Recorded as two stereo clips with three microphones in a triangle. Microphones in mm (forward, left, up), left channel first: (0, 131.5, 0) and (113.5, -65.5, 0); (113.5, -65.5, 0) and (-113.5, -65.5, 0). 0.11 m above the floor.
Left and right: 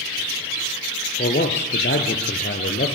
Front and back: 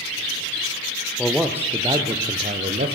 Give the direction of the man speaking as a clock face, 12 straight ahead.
9 o'clock.